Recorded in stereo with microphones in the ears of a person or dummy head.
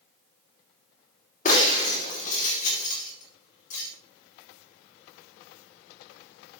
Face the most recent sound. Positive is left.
turn(degrees=40)  # may be behind; listen again after turning